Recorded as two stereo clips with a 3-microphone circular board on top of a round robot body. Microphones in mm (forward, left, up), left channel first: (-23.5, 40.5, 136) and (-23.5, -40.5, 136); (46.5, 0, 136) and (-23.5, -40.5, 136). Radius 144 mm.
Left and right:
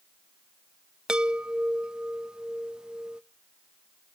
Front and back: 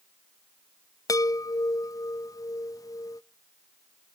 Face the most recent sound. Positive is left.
turn(degrees=-10)